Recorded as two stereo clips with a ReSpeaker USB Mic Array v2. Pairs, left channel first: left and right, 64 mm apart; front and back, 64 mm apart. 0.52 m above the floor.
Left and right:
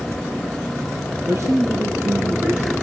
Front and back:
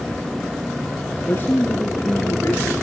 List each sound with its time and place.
1.3 s a man speaking: 55° right, 5 m; by 2.7 s 30° right, 5.5 m